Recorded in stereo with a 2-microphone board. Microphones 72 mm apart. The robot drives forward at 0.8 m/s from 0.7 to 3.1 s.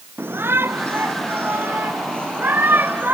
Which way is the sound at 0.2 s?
30° right (ahead or behind).